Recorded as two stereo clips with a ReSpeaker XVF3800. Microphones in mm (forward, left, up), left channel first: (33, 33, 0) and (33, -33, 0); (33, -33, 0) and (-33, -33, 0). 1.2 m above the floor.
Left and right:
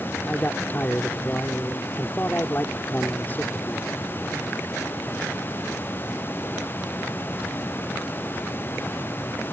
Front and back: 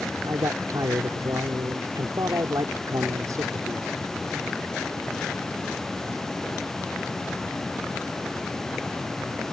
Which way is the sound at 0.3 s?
150° left.